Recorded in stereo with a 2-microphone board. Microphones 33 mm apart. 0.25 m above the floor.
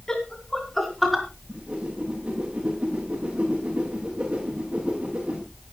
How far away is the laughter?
About 2.5 m.